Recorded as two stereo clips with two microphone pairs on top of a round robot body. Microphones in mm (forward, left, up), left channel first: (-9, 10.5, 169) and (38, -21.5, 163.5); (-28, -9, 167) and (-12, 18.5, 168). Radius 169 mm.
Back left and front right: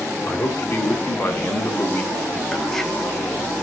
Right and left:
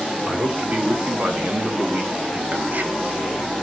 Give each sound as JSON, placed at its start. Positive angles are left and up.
{"t": 0.2, "sound": "a man speaking", "azimuth_deg": 100, "distance_m": 2.5}